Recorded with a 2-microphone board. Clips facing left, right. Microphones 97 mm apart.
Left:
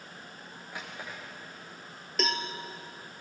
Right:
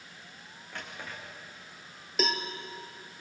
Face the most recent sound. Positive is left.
turn(degrees=-5)  # may be behind; listen again after turning